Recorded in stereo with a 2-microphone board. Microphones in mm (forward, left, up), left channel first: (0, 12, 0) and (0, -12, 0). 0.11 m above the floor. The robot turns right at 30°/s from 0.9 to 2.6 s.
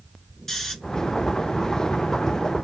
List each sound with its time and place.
0.5 s snoring: 10° left (ahead or behind), 1.0 m